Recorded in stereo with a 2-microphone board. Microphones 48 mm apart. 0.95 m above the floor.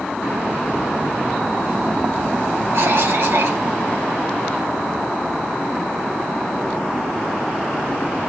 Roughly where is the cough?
Right.